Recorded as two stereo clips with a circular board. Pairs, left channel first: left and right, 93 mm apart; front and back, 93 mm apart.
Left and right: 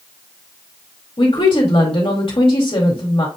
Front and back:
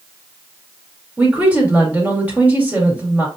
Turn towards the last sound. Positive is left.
turn(degrees=105)